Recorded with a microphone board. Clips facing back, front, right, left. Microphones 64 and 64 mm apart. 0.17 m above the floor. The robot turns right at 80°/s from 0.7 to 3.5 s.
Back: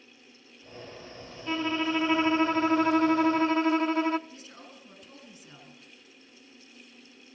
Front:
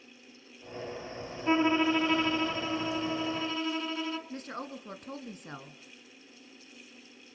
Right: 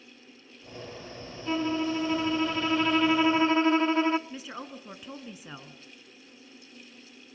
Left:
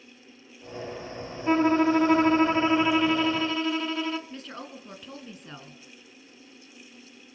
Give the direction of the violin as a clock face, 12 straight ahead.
10 o'clock.